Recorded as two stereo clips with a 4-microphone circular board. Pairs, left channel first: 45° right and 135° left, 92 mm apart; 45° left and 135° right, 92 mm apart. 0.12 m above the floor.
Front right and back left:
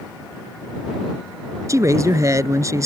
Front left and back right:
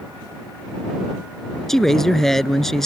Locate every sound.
1.7 s a man speaking: 130° left